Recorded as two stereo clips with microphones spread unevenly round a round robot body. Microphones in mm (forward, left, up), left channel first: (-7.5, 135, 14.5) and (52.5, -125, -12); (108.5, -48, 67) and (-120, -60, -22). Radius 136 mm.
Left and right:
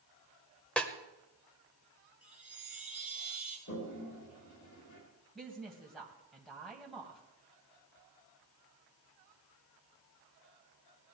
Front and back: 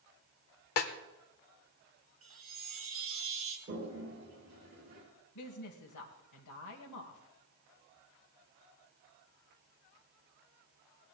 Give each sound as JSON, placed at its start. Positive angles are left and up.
{"t": 0.8, "sound": "a snare drum", "azimuth_deg": 10, "distance_m": 1.3}
{"t": 2.2, "sound": "a chime", "azimuth_deg": -160, "distance_m": 3.0}
{"t": 3.7, "sound": "a toilet flushing", "azimuth_deg": 145, "distance_m": 5.0}
{"t": 5.3, "sound": "a woman speaking", "azimuth_deg": 10, "distance_m": 2.0}